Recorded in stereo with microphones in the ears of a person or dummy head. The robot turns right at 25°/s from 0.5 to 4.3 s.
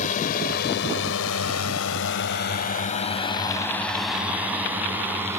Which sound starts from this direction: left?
A drone, at 0.0 s.